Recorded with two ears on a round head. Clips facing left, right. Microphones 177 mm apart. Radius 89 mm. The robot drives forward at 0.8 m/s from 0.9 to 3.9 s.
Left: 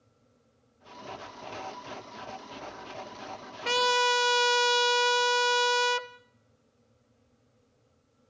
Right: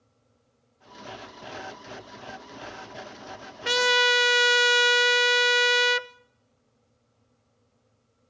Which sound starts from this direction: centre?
A trumpet, at 3.6 s.